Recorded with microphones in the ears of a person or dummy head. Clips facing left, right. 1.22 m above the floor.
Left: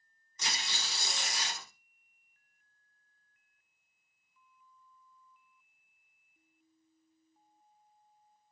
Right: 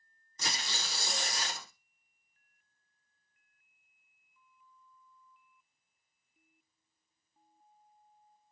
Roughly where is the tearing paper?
Right.